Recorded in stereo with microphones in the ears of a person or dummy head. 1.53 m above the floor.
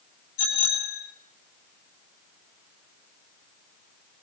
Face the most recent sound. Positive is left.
turn(degrees=75)  # may be behind; listen again after turning